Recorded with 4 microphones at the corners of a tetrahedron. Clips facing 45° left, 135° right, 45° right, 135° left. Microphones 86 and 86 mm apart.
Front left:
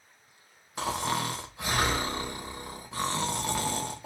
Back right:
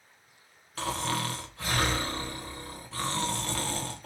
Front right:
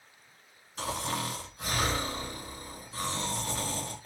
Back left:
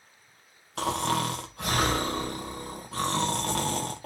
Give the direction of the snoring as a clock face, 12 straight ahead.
8 o'clock.